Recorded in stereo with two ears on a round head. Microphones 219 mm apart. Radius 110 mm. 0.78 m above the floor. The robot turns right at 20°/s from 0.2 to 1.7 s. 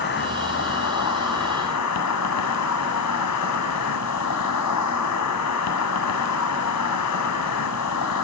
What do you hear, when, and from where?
0.0 s an insect: 45° left, 2.5 m; by 8.2 s 75° left, 2.5 m